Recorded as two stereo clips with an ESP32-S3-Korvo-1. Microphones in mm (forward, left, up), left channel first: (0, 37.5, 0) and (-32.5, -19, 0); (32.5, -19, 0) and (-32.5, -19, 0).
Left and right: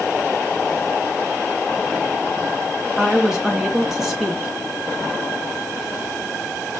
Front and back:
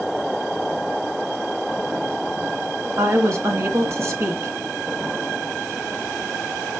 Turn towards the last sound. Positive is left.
turn(degrees=160)